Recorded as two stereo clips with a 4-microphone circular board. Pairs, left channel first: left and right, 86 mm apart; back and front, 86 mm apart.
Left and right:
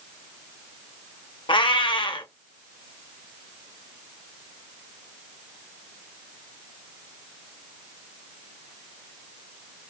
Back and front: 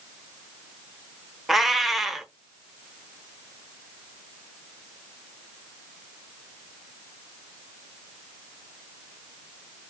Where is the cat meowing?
85° left, 0.6 m.